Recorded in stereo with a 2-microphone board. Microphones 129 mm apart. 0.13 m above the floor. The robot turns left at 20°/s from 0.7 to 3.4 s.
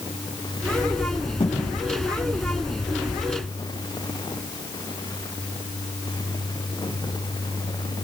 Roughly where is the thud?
Left.